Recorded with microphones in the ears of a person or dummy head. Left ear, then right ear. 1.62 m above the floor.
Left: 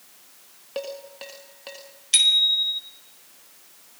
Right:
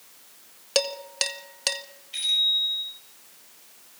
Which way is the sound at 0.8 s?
70° right (ahead or behind).